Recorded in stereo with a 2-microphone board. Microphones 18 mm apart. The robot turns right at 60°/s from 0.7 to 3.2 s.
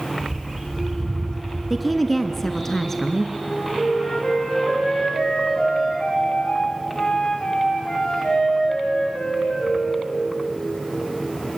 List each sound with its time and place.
0.2 s a bird: 10° right, 3.5 m; by 2.7 s 110° left, 3.5 m
1.7 s a woman speaking: 5° right (ahead or behind), 1.1 m; by 3.2 s 20° left (ahead or behind), 1.1 m
3.4 s a flute: 50° left (ahead or behind), 9 m